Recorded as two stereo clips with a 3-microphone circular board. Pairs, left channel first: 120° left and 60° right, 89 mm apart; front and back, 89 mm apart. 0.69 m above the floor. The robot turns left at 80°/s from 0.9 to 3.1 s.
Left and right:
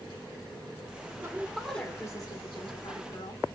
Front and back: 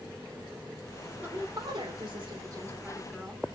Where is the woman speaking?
115° right, 1.6 m; by 3.4 s 95° left, 1.6 m.